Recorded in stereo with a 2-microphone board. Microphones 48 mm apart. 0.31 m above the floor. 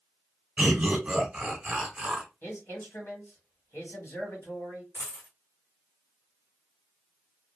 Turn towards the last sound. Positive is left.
turn(degrees=65)  # may be behind; listen again after turning